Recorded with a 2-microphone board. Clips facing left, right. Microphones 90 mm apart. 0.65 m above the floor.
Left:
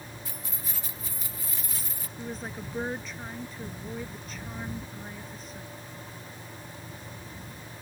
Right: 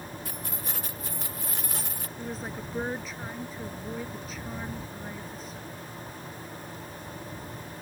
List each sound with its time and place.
0.2 s keys jangling: 60° right (ahead or behind)
2.2 s a woman speaking: 5° right (ahead or behind)